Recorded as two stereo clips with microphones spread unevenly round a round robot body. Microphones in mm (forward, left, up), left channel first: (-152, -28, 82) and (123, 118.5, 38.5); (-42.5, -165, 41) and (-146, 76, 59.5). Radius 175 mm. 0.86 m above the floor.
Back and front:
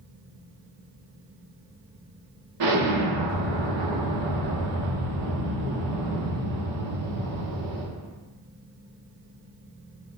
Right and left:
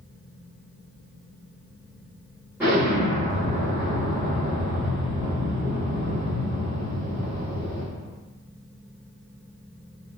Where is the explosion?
30° left, 1.2 m.